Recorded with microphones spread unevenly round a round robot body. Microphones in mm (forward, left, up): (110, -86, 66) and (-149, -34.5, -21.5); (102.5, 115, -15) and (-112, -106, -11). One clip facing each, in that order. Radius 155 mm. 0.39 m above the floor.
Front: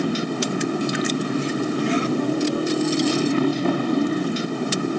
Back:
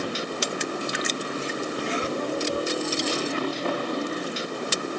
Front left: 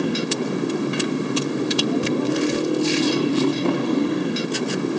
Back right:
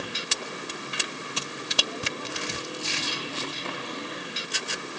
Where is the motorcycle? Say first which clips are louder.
Front 7 dB, front left 16 dB; 5° left.